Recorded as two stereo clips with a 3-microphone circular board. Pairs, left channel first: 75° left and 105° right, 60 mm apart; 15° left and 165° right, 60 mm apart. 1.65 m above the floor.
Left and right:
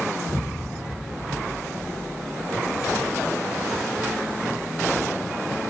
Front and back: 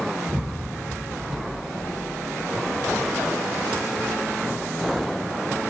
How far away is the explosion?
About 5 m.